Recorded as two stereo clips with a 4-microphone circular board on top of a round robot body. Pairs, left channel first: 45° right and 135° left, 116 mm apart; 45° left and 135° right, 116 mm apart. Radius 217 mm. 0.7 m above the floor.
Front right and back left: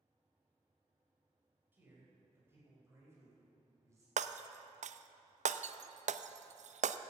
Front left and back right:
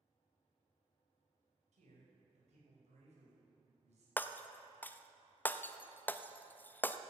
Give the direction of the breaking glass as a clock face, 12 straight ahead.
8 o'clock.